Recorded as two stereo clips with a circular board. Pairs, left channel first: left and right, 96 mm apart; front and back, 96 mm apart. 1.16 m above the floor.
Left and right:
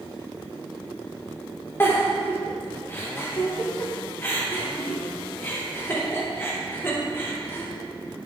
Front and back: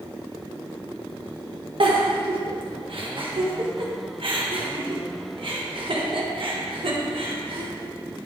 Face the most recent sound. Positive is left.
turn(degrees=155)